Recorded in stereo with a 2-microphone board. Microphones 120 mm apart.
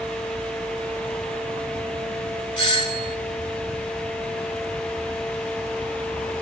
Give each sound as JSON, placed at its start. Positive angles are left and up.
{"t": 2.6, "sound": "a doorbell", "side_deg": 35, "distance_m": 2.5}